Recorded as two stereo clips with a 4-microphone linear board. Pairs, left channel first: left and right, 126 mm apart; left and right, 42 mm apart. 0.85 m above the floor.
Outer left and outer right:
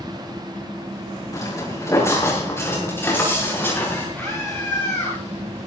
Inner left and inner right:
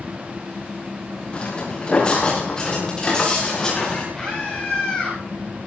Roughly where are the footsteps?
Left.